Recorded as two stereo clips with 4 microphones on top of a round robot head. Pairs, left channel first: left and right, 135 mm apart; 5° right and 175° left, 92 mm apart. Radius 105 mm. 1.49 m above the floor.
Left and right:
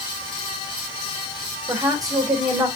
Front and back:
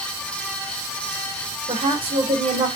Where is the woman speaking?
155° right, 3 m.